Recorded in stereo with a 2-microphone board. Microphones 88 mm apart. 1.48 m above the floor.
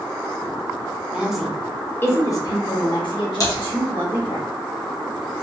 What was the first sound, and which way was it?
A woman speaking, 15° right (ahead or behind).